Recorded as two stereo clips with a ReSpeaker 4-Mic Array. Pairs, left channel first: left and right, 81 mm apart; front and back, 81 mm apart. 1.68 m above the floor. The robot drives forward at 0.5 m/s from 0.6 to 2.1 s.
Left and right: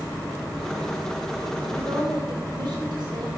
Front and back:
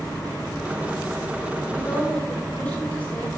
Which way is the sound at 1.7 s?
70° right.